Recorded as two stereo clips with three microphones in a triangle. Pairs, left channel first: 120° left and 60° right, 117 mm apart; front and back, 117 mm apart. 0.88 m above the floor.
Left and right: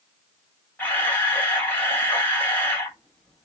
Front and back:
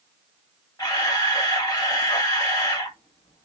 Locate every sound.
0.8 s a camera shutter: 50° left, 1.5 m